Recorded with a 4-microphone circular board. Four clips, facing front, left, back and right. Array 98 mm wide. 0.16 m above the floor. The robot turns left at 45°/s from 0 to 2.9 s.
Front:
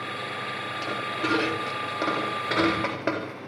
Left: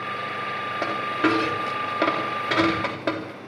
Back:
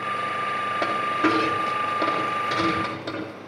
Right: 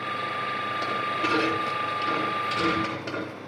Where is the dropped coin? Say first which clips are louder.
Left 6 dB, back 6 dB; 135° left, 7.5 m; by 3.5 s 40° left, 7.5 m.